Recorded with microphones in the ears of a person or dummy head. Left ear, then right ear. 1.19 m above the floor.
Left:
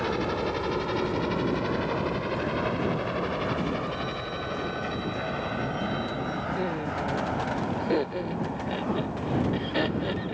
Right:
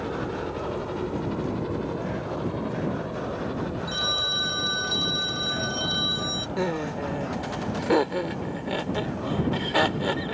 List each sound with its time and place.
0.0 s a helicopter: 70° left (ahead or behind); by 10.3 s 50° left (ahead or behind)
3.9 s a phone ringing: 55° right (ahead or behind)
6.6 s laughter: 40° right (ahead or behind)